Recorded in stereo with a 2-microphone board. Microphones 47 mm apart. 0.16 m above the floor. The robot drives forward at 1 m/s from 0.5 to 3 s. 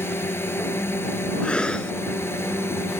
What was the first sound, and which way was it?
A drone, 60° left (ahead or behind).